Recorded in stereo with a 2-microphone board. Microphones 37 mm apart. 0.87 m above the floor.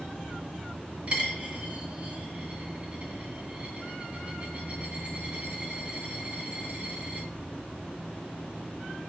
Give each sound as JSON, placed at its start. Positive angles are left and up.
{"t": 1.1, "sound": "a dropped coin", "side_deg": -30, "distance_m": 1.0}